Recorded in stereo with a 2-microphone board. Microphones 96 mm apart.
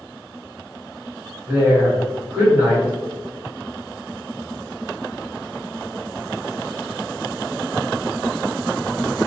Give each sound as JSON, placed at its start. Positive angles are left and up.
{"t": 1.5, "sound": "a woman speaking", "side_deg": -35, "distance_m": 1.8}